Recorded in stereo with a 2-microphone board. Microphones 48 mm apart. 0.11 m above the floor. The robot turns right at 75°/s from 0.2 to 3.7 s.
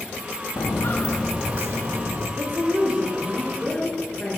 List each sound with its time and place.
0.6 s footsteps: 80° left, 0.6 m; by 2.3 s 75° right (ahead or behind), 1.5 m
2.4 s a woman speaking: 75° right, 2.5 m; by 4.4 s 25° left, 2.5 m